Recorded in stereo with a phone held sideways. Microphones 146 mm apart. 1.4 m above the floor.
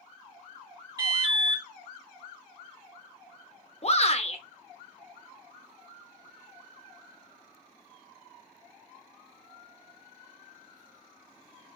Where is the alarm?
25° right (ahead or behind), 2.5 m.